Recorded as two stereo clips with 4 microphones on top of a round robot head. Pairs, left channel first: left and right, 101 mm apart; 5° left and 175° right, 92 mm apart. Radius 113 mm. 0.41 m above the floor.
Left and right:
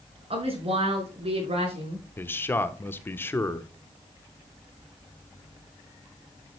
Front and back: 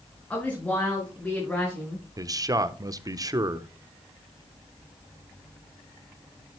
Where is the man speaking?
150° left, 1.1 m.